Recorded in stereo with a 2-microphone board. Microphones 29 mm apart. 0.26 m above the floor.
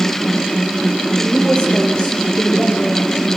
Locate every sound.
1.2 s a woman speaking: 30° left (ahead or behind), 9 m